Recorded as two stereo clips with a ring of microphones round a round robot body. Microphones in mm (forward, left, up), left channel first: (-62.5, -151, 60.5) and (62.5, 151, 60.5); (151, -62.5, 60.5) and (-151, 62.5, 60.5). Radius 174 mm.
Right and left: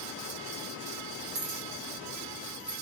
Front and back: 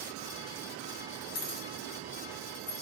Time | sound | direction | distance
1.4 | keys jangling | 5° left | 1.6 m